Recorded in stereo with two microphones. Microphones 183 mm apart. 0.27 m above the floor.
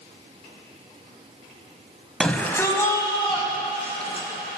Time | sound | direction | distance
2.2 | a shout | 5° left (ahead or behind) | 1.7 m